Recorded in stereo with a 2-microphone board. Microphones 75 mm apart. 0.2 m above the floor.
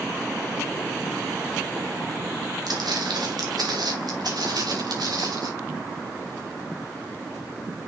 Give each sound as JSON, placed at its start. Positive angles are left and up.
{"t": 2.7, "sound": "footsteps", "side_deg": -75, "distance_m": 3.5}